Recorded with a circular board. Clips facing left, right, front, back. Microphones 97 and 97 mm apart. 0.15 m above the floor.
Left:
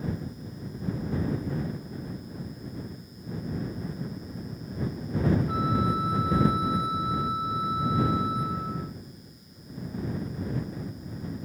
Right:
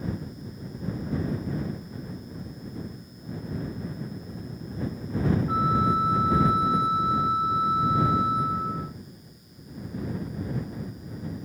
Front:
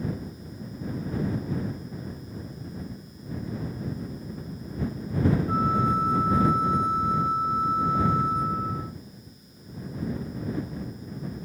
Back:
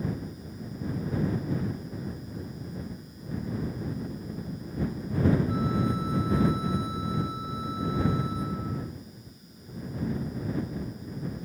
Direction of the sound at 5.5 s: 30° right.